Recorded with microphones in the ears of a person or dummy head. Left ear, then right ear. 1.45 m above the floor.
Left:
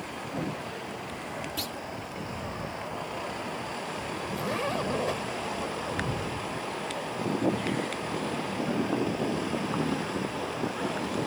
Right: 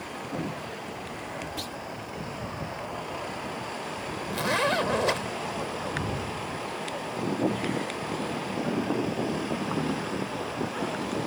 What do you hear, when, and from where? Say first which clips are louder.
1.6 s a clunk: left 1 dB; 15° left (ahead or behind)
4.3 s a zipper: right 6 dB; 35° right (ahead or behind)